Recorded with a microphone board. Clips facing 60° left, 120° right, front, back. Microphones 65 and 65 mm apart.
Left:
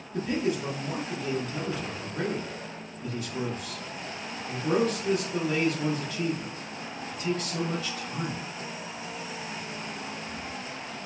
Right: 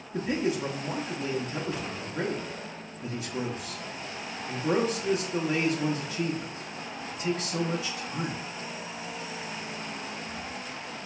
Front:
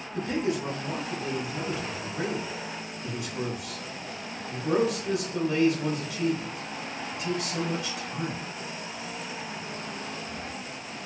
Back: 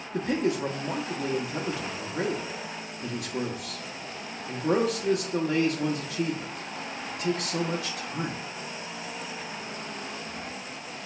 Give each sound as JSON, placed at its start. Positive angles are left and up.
{"t": 0.1, "sound": "a man speaking", "azimuth_deg": 170, "distance_m": 0.6}